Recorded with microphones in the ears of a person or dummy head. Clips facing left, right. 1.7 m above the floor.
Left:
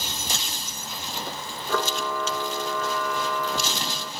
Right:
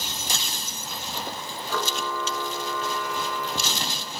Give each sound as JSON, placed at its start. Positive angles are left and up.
{"t": 1.7, "sound": "a camera shutter", "side_deg": 50, "distance_m": 1.2}